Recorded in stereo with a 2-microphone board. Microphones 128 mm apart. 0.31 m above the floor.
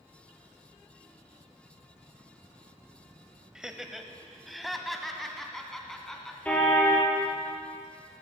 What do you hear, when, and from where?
3.5 s laughter: 5° right (ahead or behind), 1.2 m; by 6.3 s 5° left (ahead or behind), 2.5 m
6.5 s a car horn: 10° left (ahead or behind), 3.5 m